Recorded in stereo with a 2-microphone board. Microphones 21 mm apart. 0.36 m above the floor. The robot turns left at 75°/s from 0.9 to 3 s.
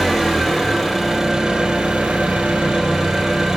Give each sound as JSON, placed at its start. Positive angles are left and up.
{"t": 0.0, "sound": "an engine running", "azimuth_deg": 5, "distance_m": 3.0}